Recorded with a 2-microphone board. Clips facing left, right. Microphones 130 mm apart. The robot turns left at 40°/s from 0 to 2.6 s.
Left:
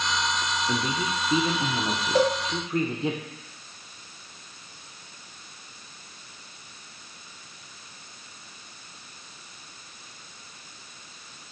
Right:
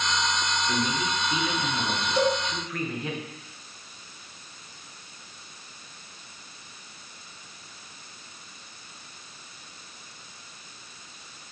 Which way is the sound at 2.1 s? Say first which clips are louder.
Left 2 dB; 60° left (ahead or behind).